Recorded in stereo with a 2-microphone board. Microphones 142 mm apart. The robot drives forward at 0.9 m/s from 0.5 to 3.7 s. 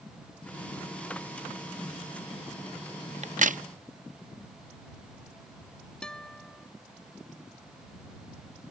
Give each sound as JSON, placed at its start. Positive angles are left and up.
{"t": 3.2, "sound": "a crack", "side_deg": -55}
{"t": 6.0, "sound": "a guitar", "side_deg": 5}